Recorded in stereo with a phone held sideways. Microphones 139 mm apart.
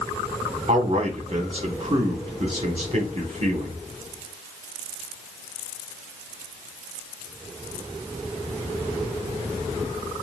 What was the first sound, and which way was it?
A man speaking, 40° right (ahead or behind).